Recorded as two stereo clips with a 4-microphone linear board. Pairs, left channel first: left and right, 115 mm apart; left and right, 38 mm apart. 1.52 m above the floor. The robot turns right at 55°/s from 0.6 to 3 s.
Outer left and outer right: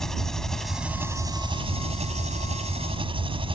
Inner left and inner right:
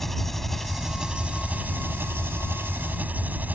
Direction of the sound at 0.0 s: 175° left.